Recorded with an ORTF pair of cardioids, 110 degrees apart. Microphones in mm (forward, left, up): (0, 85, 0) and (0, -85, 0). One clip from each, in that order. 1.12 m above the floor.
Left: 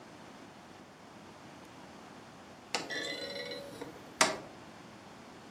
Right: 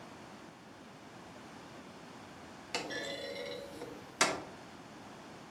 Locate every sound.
2.7 s a clunk: 25° left, 1.1 m